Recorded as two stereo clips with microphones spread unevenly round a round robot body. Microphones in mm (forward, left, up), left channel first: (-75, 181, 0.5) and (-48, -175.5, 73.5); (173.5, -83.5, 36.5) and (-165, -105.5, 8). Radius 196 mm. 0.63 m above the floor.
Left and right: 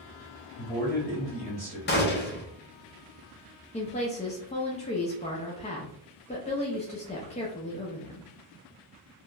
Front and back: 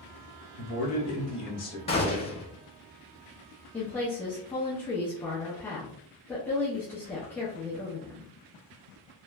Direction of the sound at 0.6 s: 15° left.